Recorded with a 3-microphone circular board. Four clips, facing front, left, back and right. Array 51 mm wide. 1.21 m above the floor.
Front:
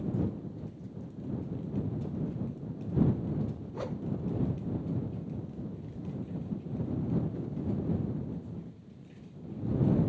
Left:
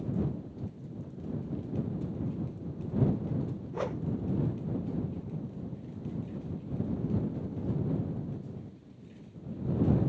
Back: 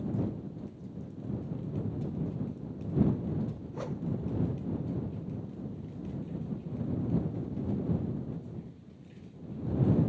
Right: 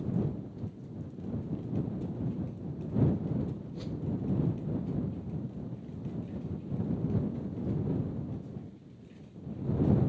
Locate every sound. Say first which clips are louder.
3.7 s a whoosh: left 5 dB, front 2 dB; 85° left